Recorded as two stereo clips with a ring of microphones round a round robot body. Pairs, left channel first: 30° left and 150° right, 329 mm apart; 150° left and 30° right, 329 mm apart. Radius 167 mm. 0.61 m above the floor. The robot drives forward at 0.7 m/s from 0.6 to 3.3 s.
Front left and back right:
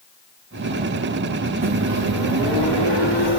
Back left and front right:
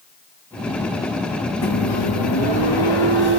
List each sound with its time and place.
1.6 s a microwave: 165° left, 2 m; by 3.4 s 170° left, 3 m